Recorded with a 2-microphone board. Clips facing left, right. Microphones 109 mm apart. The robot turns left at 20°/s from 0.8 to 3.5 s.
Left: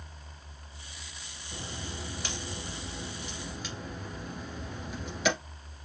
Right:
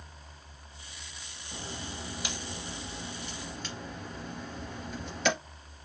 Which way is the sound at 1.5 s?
20° right (ahead or behind).